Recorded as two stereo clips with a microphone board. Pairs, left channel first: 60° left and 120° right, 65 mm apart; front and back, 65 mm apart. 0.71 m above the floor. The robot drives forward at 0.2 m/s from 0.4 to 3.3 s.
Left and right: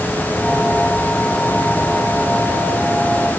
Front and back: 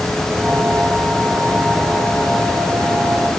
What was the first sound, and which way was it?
Only background noise.